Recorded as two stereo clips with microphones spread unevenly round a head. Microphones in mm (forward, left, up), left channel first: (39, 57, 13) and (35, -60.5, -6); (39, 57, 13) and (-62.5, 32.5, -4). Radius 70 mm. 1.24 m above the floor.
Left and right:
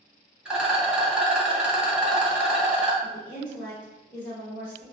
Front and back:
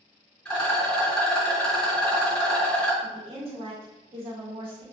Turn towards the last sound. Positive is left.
turn(degrees=170)